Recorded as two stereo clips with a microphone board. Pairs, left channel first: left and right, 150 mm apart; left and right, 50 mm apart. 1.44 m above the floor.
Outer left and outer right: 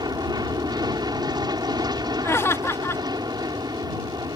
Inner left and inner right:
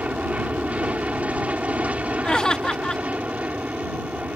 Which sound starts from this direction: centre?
Laughter, at 2.2 s.